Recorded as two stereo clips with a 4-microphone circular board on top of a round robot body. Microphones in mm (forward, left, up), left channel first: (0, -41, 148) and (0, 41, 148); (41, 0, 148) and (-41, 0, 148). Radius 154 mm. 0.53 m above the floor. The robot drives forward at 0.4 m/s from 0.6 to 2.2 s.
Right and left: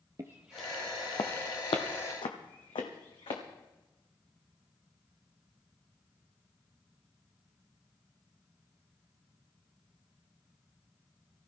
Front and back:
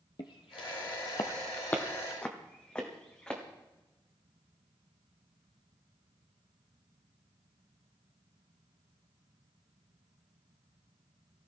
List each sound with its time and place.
0.2 s footsteps: 35° left, 0.8 m; by 3.4 s 75° right, 2.5 m